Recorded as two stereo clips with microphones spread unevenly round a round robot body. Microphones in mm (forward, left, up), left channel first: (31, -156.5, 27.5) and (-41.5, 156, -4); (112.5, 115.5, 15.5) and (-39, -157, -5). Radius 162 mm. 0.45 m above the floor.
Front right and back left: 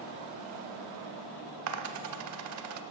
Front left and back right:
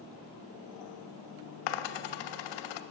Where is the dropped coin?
60° left, 0.7 m.